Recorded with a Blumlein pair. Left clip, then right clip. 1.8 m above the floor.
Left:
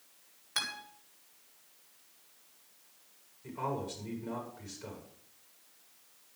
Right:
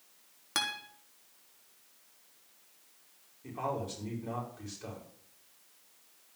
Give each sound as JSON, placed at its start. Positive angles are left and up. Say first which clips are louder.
{"t": 0.6, "sound": "a guitar", "louder": "right 2 dB", "azimuth_deg": -55, "distance_m": 3.5}
{"t": 3.4, "sound": "a man speaking", "louder": "right 1 dB", "azimuth_deg": -15, "distance_m": 6.5}